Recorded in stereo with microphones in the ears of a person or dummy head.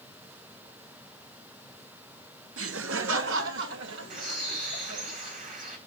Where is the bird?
55° right (ahead or behind), 2 m.